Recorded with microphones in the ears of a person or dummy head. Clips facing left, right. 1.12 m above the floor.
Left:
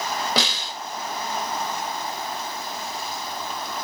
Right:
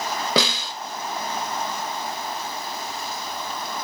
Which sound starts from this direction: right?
A snare drum, at 0.4 s.